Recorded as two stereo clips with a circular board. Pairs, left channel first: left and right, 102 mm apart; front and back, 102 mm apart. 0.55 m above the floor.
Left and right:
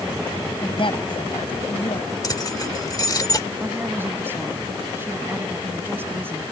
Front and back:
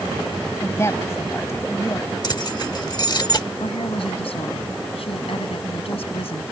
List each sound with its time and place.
0.6 s a woman speaking: 60° left
2.2 s keys jangling: 40° left
3.6 s a woman speaking: 20° right